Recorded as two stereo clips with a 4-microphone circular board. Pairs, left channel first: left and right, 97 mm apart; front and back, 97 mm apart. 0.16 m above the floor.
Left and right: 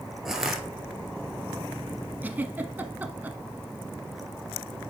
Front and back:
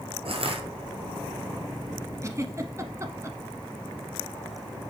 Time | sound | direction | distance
0.2 | crushing | 175° right | 1.5 m
2.2 | a giggle | 150° right | 0.8 m